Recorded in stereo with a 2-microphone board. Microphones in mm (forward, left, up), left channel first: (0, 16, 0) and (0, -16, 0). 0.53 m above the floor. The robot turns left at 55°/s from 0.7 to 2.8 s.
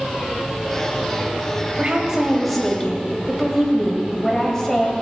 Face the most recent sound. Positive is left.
turn(degrees=160)